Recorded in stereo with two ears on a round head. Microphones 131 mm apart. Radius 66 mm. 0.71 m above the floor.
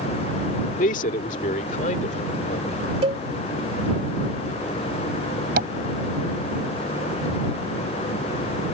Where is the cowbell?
40° right (ahead or behind).